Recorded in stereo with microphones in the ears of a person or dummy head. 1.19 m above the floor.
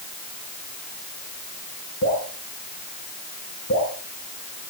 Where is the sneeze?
No sneeze in this recording.